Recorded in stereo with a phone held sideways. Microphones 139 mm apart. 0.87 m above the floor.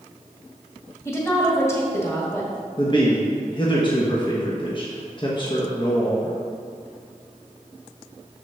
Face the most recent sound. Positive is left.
turn(degrees=35)  # may be behind; listen again after turning